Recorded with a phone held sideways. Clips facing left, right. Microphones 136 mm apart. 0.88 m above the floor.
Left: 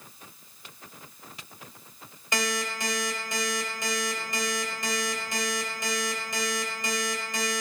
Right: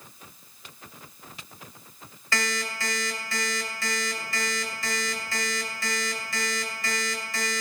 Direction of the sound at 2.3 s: 20° left (ahead or behind).